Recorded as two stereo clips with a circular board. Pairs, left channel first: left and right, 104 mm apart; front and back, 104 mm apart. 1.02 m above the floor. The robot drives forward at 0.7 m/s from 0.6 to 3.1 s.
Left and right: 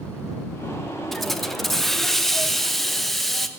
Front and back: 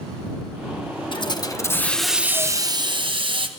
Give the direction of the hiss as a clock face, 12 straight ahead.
12 o'clock.